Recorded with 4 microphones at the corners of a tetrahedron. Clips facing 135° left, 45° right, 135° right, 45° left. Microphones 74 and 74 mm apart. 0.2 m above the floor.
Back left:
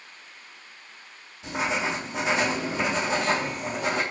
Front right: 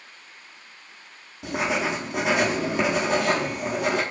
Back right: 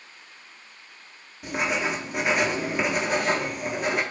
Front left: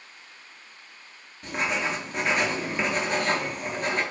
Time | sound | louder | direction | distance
1.4 | writing | front right 2 dB, back right 1 dB | 55° right | 0.6 m